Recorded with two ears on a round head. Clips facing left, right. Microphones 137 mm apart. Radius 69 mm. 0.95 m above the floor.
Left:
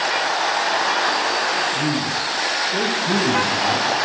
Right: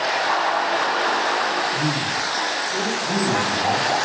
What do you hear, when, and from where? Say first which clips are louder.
1.7 s a man speaking: left 2 dB; 10° right (ahead or behind), 0.8 m; by 3.9 s 55° left (ahead or behind), 2 m